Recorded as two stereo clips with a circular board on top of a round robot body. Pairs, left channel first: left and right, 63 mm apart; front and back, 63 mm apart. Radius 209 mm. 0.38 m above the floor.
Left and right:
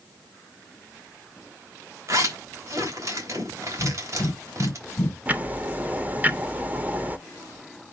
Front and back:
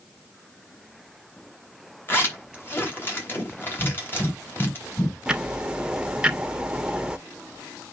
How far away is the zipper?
About 4 m.